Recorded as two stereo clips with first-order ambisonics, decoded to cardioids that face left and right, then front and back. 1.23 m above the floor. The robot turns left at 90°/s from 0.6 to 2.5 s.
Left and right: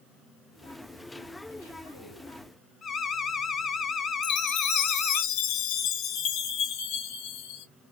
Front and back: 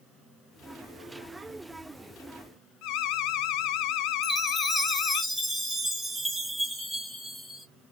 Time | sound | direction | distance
2.8 | an alarm | 25° left | 0.7 m
4.2 | a chime | 95° left | 1.2 m